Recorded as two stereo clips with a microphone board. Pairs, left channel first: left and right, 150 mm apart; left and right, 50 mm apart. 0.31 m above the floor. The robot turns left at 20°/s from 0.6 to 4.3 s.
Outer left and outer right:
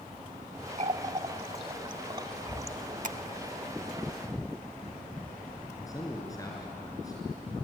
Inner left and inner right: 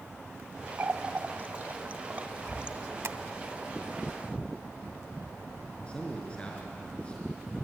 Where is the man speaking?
25° left (ahead or behind), 4 m.